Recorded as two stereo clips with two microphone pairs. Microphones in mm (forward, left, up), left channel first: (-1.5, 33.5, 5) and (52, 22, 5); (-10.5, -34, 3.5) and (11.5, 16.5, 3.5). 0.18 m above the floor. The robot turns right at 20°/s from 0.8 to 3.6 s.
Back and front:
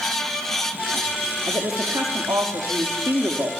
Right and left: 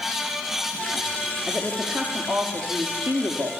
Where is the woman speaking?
5° right, 5 m; by 3.5 s 35° left, 5 m.